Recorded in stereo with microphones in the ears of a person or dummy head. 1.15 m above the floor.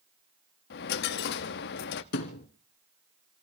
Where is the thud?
50° left (ahead or behind), 1.6 m.